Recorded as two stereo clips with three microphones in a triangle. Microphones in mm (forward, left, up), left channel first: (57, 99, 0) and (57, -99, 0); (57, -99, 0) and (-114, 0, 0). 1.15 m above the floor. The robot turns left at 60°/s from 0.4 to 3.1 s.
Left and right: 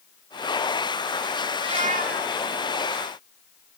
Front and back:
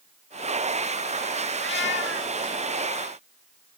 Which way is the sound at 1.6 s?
20° right.